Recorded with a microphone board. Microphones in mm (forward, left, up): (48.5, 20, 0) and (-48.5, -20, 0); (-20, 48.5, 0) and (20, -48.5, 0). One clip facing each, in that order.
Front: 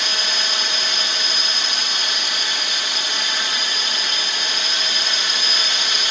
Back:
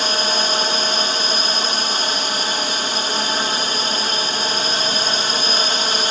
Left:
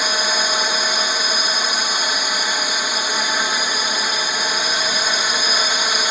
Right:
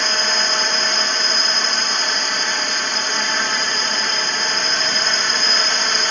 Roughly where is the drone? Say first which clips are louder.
Back 6 dB, left 1 dB; behind.